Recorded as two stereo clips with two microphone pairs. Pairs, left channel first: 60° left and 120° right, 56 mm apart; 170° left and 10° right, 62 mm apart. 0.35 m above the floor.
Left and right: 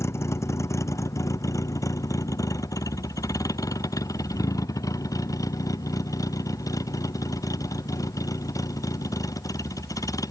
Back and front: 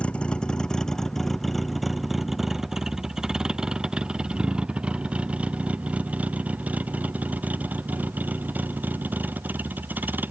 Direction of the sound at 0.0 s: 95° left.